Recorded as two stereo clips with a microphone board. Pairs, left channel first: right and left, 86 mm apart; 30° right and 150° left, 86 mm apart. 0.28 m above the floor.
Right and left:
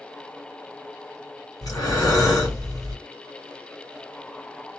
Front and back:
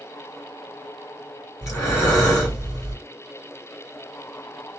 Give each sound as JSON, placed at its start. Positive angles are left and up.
{"t": 1.6, "sound": "breathing", "azimuth_deg": -70, "distance_m": 2.0}